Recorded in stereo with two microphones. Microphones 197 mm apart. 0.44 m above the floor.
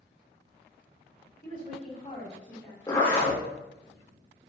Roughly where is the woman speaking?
Left.